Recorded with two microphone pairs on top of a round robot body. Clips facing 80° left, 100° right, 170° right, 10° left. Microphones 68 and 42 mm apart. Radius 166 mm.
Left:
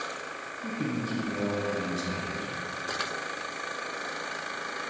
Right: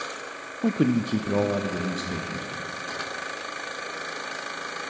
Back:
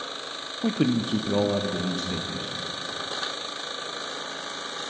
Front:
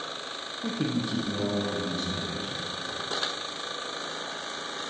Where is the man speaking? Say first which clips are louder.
Right 9 dB, back 6 dB; 110° right, 0.6 m; by 2.5 s 140° right, 1.6 m.